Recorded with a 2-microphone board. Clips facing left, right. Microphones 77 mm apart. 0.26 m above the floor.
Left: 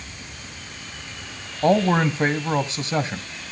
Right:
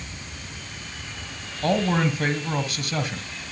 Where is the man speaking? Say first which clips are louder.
Left 4 dB; 30° left (ahead or behind), 1.8 m.